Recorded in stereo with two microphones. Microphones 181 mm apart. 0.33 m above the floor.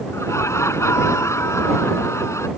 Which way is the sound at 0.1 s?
15° left (ahead or behind).